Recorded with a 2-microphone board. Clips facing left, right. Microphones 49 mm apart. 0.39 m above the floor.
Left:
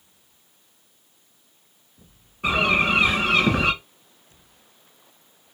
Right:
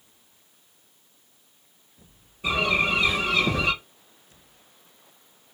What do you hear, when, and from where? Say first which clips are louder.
2.4 s a bird: left 3 dB; 70° left (ahead or behind), 2.5 m